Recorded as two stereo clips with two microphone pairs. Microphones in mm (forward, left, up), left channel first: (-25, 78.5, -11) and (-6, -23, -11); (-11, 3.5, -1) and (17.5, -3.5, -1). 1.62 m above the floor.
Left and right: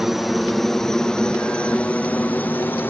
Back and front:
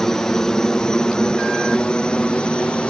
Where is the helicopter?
160° right; by 2.9 s 160° left.